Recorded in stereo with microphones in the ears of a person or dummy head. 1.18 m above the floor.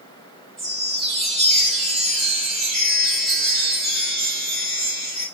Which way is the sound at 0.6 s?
Centre (ahead or behind).